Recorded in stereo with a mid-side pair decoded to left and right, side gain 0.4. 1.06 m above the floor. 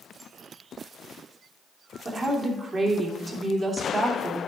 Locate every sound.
2.0 s a woman speaking: 50° right, 2.5 m